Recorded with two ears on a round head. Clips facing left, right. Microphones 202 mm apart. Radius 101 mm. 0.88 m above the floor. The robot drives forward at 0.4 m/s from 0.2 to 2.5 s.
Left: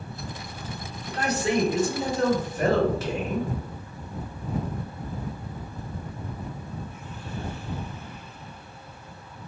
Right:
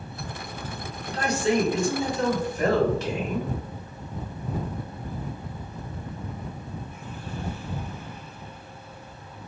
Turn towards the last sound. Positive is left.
turn(degrees=5)  # may be behind; listen again after turning